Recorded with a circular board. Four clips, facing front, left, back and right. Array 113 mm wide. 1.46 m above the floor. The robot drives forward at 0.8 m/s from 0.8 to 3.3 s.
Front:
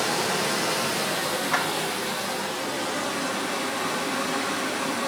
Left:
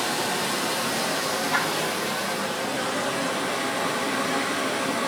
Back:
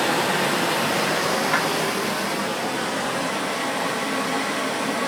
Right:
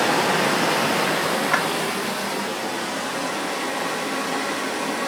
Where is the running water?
115° right, 1.0 m; by 5.1 s 160° right, 2.5 m.